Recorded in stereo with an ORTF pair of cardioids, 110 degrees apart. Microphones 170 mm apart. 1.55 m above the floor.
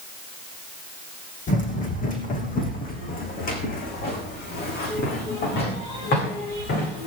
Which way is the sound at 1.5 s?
50° left.